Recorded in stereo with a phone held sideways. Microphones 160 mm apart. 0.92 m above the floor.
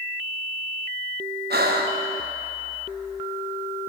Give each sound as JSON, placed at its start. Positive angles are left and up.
{"t": 1.5, "sound": "breathing", "side_deg": -80, "distance_m": 0.8}